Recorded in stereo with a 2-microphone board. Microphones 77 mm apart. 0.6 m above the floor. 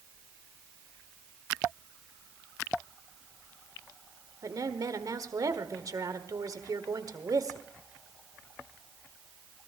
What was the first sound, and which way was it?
A woman speaking, 55° right (ahead or behind).